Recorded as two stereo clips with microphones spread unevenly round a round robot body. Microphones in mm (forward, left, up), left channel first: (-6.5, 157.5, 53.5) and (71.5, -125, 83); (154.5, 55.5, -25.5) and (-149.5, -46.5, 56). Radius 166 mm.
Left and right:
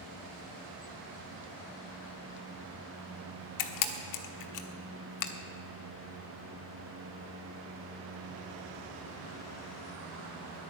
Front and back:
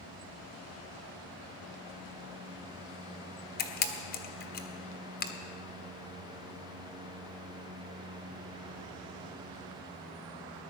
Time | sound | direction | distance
3.6 | a camera shutter | 80° left | 1.2 m